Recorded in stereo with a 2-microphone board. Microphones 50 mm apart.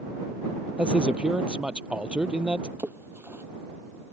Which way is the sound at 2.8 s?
50° right (ahead or behind).